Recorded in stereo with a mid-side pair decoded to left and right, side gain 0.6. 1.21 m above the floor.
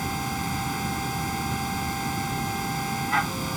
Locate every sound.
0.0 s a machine running: 5° right